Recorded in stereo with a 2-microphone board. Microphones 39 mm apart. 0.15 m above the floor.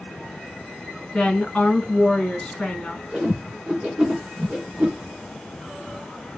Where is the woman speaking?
15° left (ahead or behind), 1.7 m.